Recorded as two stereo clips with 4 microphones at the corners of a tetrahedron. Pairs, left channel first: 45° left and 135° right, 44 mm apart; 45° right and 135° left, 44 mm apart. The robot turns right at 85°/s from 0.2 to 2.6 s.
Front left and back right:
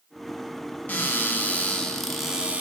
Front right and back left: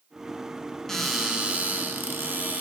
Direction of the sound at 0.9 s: 30° left.